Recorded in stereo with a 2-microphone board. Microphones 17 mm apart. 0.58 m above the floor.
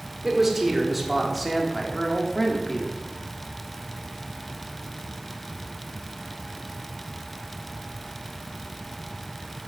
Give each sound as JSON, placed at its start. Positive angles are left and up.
{"t": 0.2, "sound": "a man speaking", "side_deg": -20, "distance_m": 2.0}